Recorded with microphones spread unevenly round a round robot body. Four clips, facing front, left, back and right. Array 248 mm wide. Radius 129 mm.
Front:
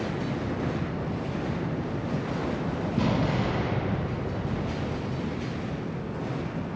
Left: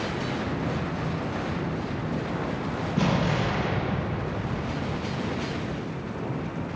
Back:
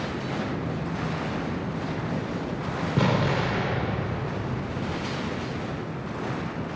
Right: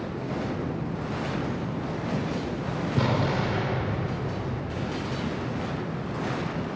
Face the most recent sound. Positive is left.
turn(degrees=-160)